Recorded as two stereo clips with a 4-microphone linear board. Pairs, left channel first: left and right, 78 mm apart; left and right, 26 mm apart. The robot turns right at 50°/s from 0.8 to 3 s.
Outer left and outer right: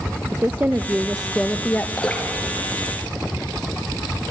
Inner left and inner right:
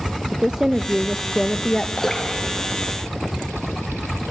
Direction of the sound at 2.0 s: 10° left (ahead or behind).